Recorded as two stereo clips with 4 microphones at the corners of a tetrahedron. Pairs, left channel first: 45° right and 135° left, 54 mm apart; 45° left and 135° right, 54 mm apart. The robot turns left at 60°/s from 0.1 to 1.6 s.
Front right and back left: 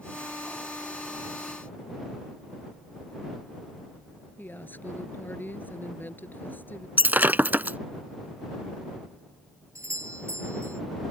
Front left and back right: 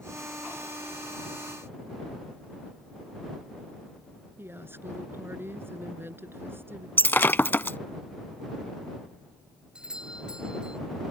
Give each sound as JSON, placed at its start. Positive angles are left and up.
{"t": 4.4, "sound": "a woman speaking", "azimuth_deg": -95}
{"t": 7.0, "sound": "breaking glass", "azimuth_deg": 90}
{"t": 9.8, "sound": "a doorbell", "azimuth_deg": 155}